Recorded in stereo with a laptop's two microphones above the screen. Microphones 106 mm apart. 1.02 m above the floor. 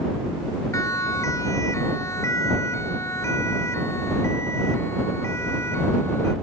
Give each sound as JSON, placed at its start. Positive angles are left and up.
{"t": 0.7, "sound": "a siren", "side_deg": 30}